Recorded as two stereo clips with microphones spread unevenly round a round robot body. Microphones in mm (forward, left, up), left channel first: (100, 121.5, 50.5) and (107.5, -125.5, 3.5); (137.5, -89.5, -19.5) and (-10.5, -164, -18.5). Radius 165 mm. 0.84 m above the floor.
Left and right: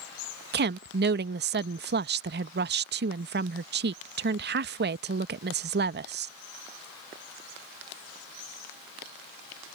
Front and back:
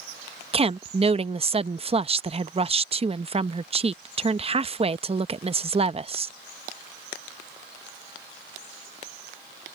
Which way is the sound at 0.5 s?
105° right.